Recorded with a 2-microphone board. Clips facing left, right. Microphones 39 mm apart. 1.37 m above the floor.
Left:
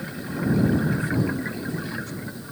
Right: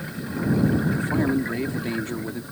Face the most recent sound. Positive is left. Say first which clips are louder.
# right 3 dB
turn(degrees=-50)  # may be behind; listen again after turning